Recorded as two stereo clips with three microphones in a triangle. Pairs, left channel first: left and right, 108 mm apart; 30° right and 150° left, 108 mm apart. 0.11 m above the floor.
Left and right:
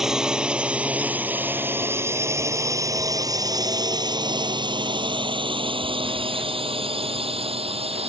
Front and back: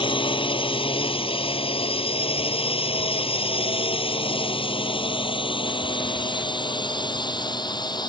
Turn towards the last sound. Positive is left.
turn(degrees=-75)